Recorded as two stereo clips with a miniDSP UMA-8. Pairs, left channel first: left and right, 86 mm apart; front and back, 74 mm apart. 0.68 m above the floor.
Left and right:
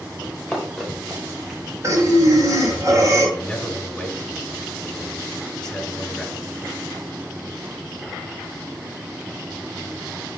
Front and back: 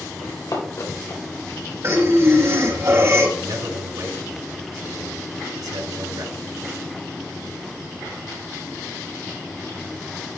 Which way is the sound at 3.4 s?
175° left.